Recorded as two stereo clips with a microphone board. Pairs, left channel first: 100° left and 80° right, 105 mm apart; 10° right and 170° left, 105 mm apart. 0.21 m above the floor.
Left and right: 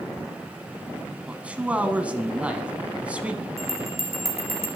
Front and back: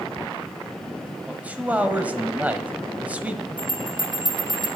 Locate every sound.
1.3 s a man speaking: 135° right, 1.1 m
3.6 s a bell: 60° right, 3 m